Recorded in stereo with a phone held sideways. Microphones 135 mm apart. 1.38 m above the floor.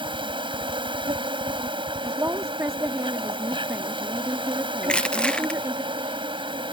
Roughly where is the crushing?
Centre.